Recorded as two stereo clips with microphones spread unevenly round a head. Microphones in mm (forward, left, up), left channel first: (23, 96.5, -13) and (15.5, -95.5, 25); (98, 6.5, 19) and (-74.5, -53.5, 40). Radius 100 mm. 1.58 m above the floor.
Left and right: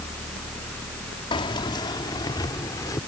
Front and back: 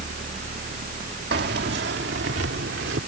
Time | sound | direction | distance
1.3 | keys jangling | 160° left | ?